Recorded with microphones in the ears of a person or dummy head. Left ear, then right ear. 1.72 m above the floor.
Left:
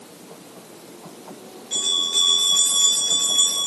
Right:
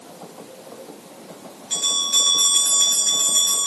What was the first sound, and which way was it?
A bell, 35° right (ahead or behind).